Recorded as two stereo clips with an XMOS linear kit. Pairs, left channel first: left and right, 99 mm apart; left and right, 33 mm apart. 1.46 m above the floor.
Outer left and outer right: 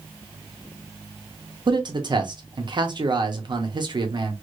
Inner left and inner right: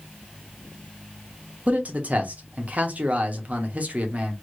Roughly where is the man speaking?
Right.